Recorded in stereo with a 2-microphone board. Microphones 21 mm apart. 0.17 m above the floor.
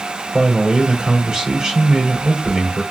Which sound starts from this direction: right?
A man speaking, at 0.3 s.